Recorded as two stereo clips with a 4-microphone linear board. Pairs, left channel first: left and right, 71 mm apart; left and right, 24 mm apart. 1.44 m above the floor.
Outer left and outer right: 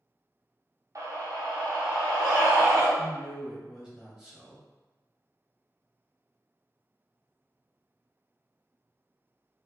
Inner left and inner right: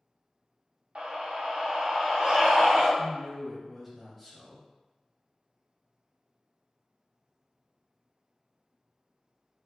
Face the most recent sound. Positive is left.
turn(degrees=-10)  # may be behind; listen again after turning